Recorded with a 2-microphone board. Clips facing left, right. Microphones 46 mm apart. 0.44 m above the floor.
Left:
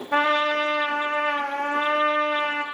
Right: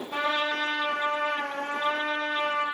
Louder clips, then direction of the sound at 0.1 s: Left 7 dB; 80° left.